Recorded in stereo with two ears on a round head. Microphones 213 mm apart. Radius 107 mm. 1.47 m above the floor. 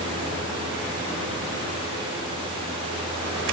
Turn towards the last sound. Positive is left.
No sound to turn to.